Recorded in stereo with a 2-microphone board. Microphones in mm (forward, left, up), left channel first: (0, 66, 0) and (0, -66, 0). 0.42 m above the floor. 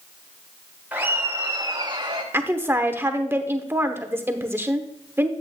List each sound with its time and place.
0.9 s laughter: 15° right (ahead or behind), 1.8 m; by 2.2 s 45° right (ahead or behind), 1.9 m
2.3 s a woman speaking: 20° right (ahead or behind), 0.9 m